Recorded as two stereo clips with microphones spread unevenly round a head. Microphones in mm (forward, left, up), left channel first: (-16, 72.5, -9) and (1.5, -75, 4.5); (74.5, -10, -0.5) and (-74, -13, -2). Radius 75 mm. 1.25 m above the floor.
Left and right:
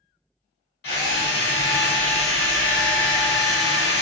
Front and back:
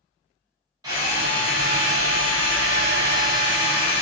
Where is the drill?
115° left, 0.9 m.